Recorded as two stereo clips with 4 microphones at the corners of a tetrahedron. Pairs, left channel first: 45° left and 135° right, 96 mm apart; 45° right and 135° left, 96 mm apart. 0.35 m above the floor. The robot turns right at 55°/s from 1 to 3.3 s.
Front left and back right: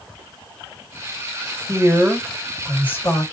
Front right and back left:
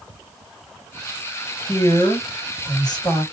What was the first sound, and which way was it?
A woman speaking, 85° right.